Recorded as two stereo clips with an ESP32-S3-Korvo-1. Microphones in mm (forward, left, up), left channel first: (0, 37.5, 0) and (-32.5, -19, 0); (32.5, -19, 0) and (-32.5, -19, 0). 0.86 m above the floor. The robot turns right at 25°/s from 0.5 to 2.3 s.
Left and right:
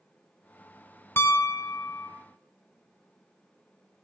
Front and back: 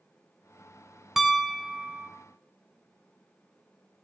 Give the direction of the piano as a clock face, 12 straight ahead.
9 o'clock.